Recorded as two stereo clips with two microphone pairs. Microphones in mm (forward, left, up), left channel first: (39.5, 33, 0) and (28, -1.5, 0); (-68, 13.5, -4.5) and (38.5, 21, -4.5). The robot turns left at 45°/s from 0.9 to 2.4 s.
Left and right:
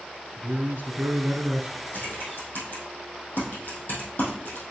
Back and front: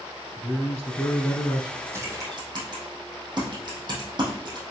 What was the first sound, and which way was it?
A man speaking, 115° right.